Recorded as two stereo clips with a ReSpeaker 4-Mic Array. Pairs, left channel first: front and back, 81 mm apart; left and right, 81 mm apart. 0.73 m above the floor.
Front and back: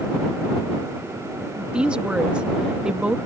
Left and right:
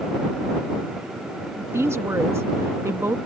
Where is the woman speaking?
110° right.